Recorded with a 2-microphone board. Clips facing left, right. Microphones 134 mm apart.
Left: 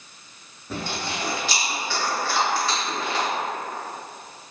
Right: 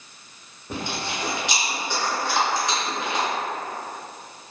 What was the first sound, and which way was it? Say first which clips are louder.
Chewing: even; 20° right (ahead or behind).